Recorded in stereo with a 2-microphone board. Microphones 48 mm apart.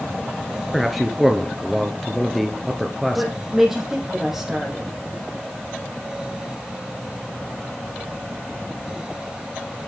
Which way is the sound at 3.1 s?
5° right (ahead or behind).